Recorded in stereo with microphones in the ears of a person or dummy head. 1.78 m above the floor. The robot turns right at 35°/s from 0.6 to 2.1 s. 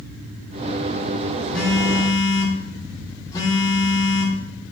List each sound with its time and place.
1.5 s a phone buzzing: centre (ahead or behind), 1.6 m; by 4.4 s 20° left (ahead or behind), 1.6 m